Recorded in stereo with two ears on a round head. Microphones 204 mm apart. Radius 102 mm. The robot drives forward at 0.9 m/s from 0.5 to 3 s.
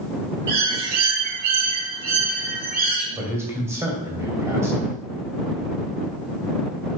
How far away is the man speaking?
About 2 m.